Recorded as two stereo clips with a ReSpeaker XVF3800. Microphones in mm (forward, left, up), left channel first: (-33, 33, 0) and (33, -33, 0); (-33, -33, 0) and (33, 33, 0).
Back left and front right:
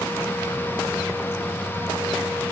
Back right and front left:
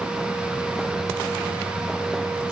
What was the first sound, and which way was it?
Only background noise.